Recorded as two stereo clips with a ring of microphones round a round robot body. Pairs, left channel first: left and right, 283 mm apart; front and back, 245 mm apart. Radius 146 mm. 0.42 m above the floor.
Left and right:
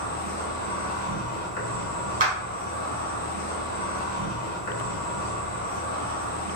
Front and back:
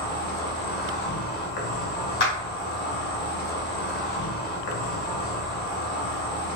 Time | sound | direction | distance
0.0 | an insect | 40° left | 1.3 m
2.2 | a clap | 35° right | 1.8 m